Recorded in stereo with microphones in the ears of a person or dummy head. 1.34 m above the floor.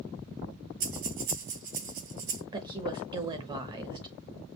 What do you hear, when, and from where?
0.8 s breathing: 45° right (ahead or behind), 2 m
2.5 s a woman speaking: 20° right (ahead or behind), 1.1 m